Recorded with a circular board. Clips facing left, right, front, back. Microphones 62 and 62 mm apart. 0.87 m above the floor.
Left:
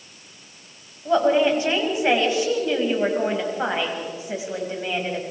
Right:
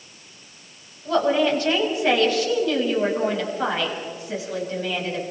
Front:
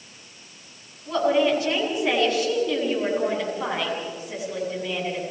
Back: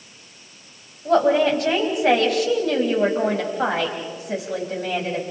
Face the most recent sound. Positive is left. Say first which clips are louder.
# left 2 dB, back 4 dB
turn(degrees=160)